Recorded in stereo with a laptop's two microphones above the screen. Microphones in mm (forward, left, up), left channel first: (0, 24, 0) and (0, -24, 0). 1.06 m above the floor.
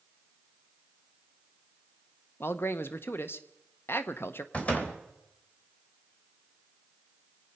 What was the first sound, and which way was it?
A man speaking, 50° left (ahead or behind).